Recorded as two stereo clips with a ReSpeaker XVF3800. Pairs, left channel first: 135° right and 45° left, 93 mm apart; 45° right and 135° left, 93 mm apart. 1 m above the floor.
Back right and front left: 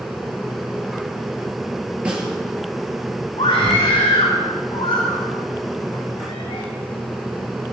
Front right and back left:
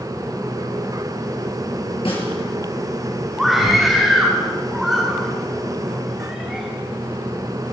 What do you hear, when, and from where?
2.0 s a snare drum: 35° right, 4 m
3.4 s a scream: 140° right, 2 m